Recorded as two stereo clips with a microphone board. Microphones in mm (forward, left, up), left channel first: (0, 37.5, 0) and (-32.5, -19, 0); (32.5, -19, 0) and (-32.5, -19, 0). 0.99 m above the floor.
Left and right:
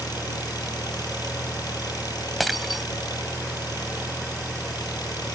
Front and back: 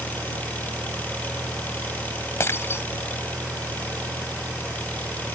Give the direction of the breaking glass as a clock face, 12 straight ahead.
1 o'clock.